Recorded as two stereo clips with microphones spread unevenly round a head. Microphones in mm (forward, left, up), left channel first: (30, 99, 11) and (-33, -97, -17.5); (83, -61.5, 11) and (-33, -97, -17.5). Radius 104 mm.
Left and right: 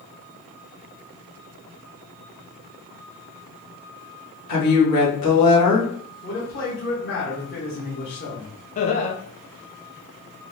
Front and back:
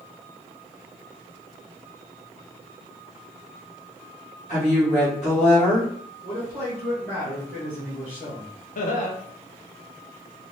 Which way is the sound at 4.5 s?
80° left.